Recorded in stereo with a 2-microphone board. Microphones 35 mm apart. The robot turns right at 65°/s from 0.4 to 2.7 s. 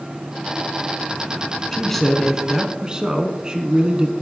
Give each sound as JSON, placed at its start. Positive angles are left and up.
{"t": 1.7, "sound": "a man speaking", "azimuth_deg": 155, "distance_m": 1.2}